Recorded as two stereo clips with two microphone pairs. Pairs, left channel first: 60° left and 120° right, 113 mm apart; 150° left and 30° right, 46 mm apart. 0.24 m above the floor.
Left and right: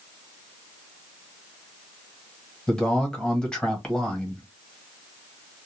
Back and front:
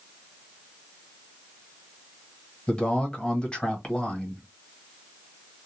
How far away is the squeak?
No squeak in this recording.